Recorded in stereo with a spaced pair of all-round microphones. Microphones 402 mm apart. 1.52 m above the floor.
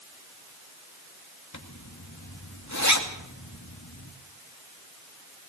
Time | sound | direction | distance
1.5 | a zipper | 40° left (ahead or behind) | 2 m